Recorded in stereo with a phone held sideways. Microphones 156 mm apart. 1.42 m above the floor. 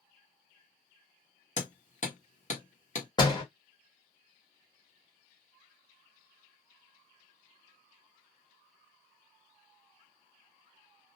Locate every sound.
1.6 s hammering: 50° left (ahead or behind), 1.0 m
3.2 s a door slam: 25° left (ahead or behind), 1.2 m